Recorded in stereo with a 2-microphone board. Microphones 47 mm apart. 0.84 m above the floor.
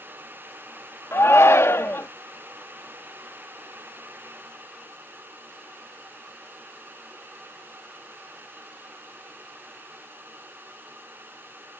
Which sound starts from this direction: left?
A shout, at 1.1 s.